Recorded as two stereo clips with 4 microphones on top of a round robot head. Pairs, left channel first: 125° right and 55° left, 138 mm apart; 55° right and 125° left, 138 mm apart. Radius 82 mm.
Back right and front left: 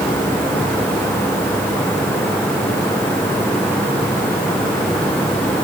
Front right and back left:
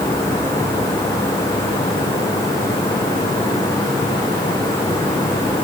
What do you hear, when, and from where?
Only background noise.